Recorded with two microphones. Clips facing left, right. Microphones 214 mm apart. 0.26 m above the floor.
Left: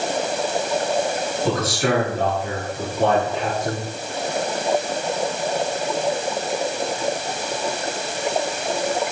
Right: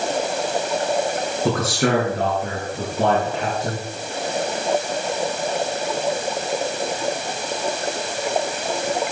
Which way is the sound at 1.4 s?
50° right (ahead or behind).